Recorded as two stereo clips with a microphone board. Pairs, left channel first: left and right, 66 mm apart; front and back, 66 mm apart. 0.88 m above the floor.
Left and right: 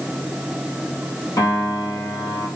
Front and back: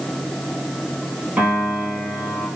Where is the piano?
115° left, 4.5 m.